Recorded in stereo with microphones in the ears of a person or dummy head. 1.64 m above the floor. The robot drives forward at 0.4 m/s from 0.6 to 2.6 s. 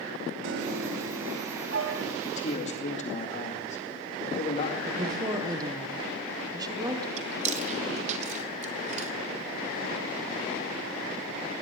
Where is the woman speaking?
25° right (ahead or behind), 1.4 m.